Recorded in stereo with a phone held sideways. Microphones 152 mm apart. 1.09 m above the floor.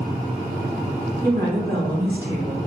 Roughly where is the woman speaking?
Right.